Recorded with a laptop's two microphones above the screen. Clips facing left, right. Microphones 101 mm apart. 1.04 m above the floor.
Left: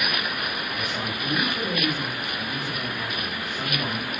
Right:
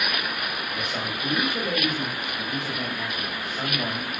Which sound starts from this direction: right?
A man speaking, at 0.7 s.